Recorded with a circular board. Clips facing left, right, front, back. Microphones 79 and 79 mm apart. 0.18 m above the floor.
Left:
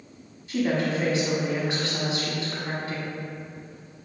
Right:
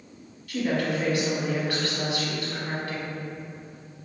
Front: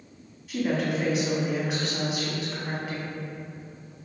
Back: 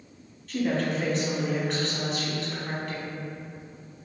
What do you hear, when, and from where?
0.5 s a woman speaking: 70° left, 1.1 m